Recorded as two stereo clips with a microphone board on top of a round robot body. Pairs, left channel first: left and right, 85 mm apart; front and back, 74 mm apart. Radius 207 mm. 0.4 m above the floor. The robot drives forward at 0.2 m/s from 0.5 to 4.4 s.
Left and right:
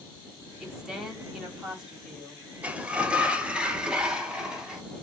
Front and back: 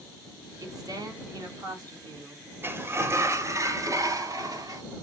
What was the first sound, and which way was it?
A woman speaking, 170° right.